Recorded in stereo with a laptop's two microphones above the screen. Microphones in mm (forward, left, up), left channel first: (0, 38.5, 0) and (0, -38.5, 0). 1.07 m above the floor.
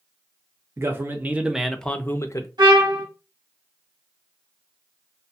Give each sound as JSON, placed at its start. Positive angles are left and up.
{"t": 0.8, "sound": "a man speaking", "side_deg": -35, "distance_m": 0.9}
{"t": 2.6, "sound": "a trumpet", "side_deg": -70, "distance_m": 1.5}